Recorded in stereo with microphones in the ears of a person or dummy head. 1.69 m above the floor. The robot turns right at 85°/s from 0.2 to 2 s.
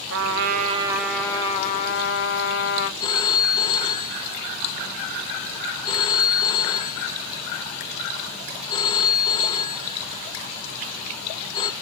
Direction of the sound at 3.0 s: 30° left (ahead or behind).